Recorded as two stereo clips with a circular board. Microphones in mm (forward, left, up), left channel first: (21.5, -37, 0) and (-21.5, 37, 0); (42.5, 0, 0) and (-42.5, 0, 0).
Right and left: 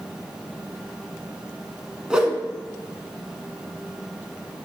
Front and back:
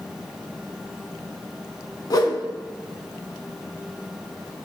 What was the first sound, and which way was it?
A whoosh, 40° left.